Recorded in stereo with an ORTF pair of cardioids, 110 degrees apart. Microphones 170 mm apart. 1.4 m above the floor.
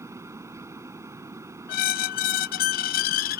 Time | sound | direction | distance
0.0 | a fan | 15° right | ?
1.7 | a squeak | 70° left | ?